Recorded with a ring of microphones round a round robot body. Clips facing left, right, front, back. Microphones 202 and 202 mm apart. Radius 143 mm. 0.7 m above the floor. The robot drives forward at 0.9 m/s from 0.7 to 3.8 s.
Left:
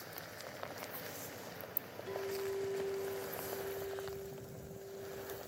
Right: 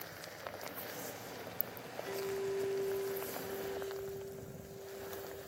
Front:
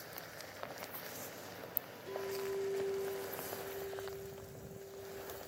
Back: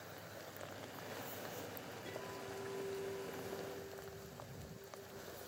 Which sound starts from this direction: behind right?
A clink, at 2.0 s.